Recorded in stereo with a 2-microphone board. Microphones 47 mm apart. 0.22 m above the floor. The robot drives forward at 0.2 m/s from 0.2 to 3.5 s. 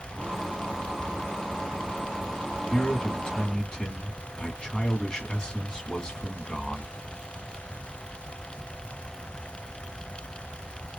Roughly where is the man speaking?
Centre.